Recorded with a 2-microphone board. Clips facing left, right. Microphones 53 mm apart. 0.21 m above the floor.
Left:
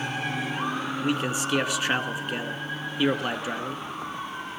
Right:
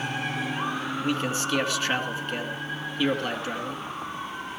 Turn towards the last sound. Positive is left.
turn(degrees=15)  # may be behind; listen again after turning